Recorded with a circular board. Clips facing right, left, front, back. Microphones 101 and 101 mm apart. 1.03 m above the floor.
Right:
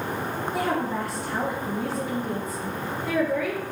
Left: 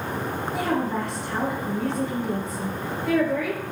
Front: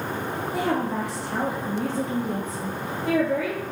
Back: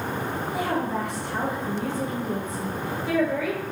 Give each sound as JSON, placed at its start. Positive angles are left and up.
{"t": 0.5, "sound": "a woman speaking", "azimuth_deg": 0, "distance_m": 1.3}